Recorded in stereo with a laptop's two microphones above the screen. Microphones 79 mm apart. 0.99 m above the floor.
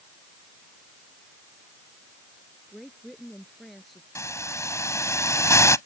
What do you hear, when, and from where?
2.7 s a woman speaking: centre (ahead or behind)
4.2 s a hiss: 40° left (ahead or behind)